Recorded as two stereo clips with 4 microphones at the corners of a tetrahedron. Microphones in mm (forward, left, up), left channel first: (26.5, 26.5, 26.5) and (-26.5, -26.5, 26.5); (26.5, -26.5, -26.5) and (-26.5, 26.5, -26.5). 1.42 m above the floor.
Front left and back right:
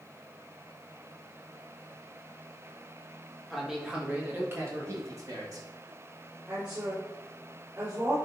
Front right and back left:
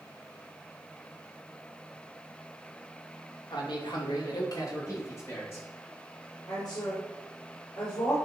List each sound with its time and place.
3.5 s a man speaking: 45° right, 2.5 m; by 5.7 s 100° right, 3.5 m
6.5 s a woman speaking: 75° right, 4.5 m